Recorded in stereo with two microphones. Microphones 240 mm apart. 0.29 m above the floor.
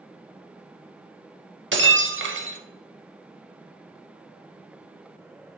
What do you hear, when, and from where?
1.7 s breaking glass: 55° right (ahead or behind), 0.5 m